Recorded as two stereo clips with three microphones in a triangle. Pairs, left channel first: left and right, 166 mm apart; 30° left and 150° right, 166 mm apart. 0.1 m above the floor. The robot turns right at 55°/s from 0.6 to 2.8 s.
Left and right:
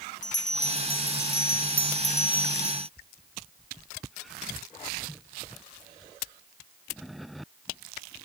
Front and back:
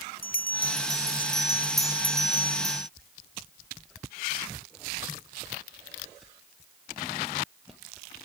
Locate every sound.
0.2 s a bell: 55° left; by 2.9 s 175° left